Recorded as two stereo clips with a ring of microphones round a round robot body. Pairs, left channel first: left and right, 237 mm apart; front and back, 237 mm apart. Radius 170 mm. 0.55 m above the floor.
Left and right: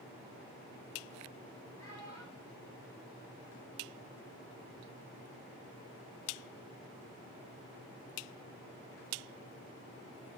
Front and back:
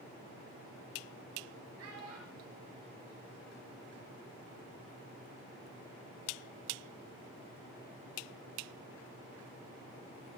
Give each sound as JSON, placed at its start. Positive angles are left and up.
{"t": 1.8, "sound": "a child speaking", "azimuth_deg": 170, "distance_m": 8.0}